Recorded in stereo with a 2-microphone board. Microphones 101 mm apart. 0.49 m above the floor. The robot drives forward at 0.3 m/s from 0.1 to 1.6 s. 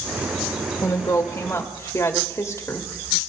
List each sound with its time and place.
0.8 s a woman speaking: 35° left (ahead or behind), 1.2 m; by 3.3 s 30° left (ahead or behind), 1.3 m